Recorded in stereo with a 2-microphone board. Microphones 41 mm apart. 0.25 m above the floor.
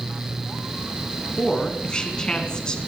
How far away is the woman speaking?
About 2.5 m.